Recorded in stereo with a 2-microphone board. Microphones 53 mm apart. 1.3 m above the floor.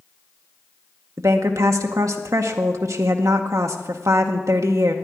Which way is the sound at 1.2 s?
80° right.